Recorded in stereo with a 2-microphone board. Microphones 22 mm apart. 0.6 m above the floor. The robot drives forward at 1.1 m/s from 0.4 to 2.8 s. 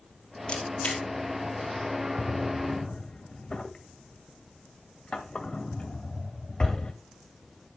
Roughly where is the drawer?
Left.